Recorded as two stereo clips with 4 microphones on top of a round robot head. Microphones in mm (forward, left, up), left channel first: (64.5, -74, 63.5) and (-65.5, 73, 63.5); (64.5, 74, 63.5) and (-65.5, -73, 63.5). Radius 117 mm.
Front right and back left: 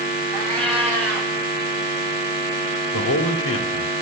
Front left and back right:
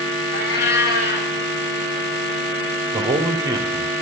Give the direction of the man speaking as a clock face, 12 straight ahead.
2 o'clock.